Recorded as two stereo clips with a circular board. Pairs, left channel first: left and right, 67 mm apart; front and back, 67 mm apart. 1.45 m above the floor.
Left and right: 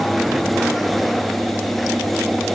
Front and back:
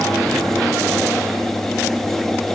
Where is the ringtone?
I don't hear a ringtone.